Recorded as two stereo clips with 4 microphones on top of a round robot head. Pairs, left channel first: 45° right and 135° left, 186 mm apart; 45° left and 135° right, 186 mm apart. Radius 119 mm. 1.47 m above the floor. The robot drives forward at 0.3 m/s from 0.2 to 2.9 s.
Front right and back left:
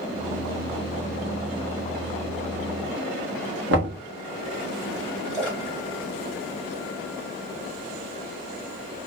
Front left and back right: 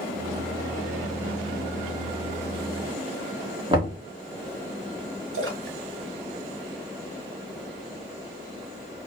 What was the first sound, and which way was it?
Knocking, 155° left.